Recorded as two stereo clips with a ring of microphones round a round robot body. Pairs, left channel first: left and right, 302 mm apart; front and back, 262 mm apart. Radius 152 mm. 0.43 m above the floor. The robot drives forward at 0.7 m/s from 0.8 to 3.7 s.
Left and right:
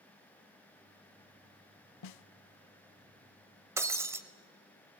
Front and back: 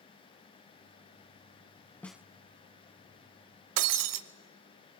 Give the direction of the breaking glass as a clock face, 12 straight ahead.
6 o'clock.